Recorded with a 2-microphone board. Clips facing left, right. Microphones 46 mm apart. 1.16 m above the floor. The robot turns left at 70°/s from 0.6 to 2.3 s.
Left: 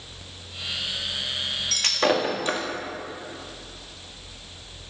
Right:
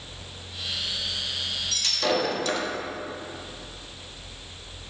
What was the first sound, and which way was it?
Breaking glass, 65° left (ahead or behind).